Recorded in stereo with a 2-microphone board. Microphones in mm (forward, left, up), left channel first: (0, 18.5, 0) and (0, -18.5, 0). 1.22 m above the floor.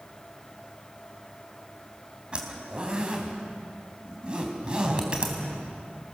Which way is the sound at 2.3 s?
25° right (ahead or behind).